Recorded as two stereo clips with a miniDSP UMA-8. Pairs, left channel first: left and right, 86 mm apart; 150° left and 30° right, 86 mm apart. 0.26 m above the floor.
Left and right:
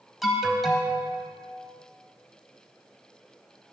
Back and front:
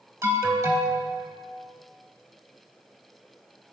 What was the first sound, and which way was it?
An alarm, straight ahead.